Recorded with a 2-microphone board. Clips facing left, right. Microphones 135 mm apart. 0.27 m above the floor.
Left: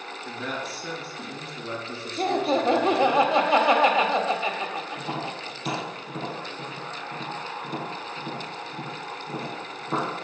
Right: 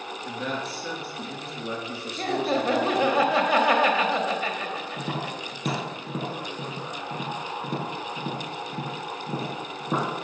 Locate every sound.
0.2 s a man speaking: centre (ahead or behind), 3.5 m
2.2 s laughter: 20° left (ahead or behind), 1.1 m
5.0 s tapping: 45° right (ahead or behind), 4.5 m